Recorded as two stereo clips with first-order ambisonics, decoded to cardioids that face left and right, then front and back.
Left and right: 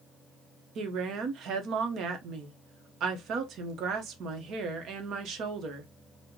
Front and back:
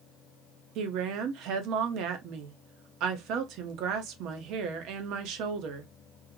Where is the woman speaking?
140° right, 0.8 m.